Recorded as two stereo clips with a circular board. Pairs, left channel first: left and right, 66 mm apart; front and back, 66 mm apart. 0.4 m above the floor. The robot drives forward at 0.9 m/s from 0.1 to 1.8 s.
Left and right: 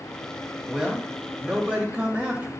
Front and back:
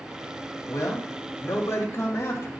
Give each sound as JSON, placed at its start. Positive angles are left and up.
{"t": 0.7, "sound": "a man speaking", "azimuth_deg": -15, "distance_m": 3.0}